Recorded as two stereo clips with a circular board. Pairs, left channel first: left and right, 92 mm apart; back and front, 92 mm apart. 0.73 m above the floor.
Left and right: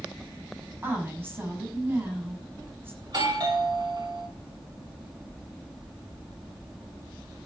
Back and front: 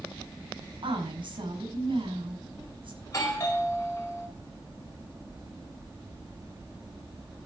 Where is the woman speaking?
25° right, 6.5 m.